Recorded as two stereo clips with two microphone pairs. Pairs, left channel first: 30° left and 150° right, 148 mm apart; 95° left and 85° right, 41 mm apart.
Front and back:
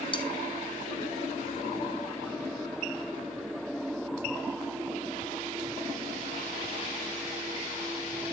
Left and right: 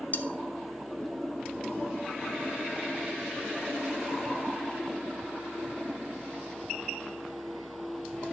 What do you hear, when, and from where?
0.1 s cutlery clinking: 70° left, 0.7 m